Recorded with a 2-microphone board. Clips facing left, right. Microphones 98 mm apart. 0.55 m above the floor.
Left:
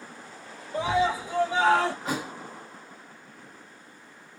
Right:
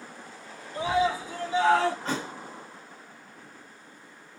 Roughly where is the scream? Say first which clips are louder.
Left 1 dB; left.